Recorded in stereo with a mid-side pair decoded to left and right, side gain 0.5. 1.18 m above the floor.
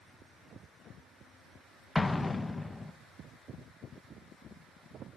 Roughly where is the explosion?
Ahead.